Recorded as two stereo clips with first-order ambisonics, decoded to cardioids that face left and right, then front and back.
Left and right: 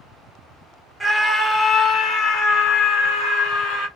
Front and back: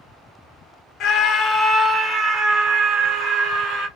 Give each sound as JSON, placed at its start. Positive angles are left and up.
{"t": 1.0, "sound": "a scream", "azimuth_deg": -10, "distance_m": 0.7}